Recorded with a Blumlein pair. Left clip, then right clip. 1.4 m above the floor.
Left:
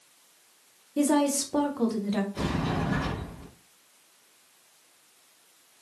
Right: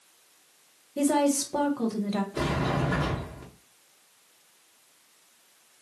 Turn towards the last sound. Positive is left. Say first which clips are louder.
# right 2 dB
turn(degrees=-25)